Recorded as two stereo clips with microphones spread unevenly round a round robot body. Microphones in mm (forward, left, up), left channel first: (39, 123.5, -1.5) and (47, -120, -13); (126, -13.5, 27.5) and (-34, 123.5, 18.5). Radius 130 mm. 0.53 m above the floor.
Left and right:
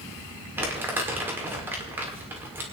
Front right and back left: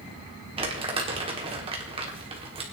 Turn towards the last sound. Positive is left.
turn(degrees=-165)